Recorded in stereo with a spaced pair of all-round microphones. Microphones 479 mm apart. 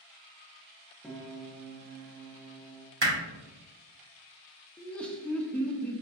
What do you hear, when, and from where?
1.0 s a piano: centre (ahead or behind), 0.5 m
3.0 s hammering: 60° right (ahead or behind), 1.1 m
4.8 s laughter: centre (ahead or behind), 0.6 m